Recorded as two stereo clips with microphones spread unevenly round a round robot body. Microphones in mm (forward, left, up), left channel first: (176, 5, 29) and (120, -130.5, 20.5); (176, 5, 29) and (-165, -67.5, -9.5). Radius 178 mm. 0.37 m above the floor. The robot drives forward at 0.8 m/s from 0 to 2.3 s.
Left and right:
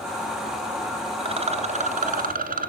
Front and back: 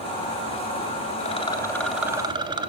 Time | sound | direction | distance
1.2 | a rattle | 60° right | 1.7 m